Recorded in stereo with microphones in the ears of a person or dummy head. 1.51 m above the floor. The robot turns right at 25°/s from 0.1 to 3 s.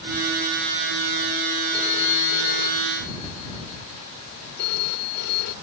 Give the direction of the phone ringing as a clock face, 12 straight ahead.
11 o'clock.